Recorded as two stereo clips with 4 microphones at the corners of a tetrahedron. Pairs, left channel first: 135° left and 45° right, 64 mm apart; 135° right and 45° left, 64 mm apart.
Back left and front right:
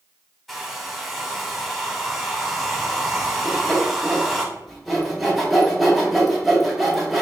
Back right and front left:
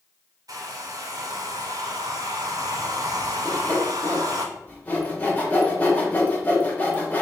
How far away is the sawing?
About 0.8 m.